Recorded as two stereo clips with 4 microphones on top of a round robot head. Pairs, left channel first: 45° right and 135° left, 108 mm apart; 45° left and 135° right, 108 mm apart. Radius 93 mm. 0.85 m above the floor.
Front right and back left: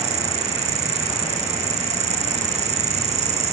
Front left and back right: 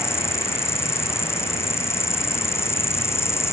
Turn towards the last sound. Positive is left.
turn(degrees=110)